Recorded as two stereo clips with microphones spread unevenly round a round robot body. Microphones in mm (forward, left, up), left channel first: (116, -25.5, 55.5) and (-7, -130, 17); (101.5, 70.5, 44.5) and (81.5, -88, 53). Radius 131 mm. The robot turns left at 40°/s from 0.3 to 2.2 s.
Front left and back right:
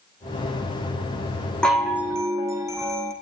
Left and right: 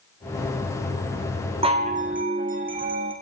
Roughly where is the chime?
Ahead right.